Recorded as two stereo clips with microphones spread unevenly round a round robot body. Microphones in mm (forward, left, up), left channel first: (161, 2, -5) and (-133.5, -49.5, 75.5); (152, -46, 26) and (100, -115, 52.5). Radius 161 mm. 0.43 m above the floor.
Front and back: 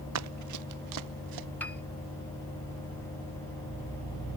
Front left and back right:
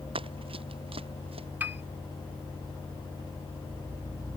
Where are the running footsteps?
135° right; by 1.5 s 160° right.